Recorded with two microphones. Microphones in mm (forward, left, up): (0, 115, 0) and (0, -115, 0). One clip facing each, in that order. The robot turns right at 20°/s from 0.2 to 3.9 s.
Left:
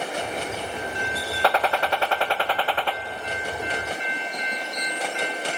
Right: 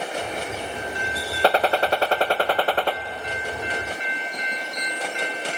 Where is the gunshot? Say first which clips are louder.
Right 4 dB; 135° right, 0.7 m; by 3.0 s 105° right, 0.7 m.